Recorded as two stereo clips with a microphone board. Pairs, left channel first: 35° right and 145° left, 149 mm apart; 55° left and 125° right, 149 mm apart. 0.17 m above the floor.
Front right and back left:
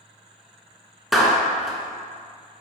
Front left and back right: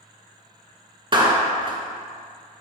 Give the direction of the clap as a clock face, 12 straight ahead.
4 o'clock.